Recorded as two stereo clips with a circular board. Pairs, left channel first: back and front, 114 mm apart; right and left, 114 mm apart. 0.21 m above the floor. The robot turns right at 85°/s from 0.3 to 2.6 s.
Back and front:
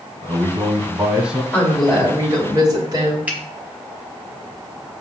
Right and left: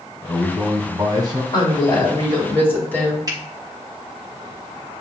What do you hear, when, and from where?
0.2 s a man speaking: 5° right, 1.2 m; by 1.4 s 90° left, 1.2 m
1.5 s a woman speaking: 115° right, 2.0 m; by 3.2 s 25° right, 2.0 m
3.3 s a finger snap: 70° left, 1.0 m